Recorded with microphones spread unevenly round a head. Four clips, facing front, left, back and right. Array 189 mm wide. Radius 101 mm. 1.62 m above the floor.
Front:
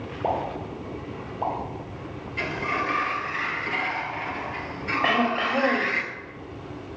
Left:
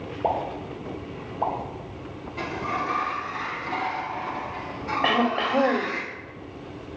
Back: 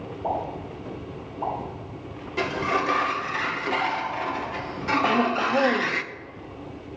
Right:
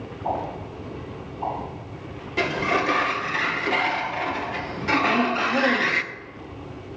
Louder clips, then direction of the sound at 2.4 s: Right 6 dB, back 4 dB; 110° right.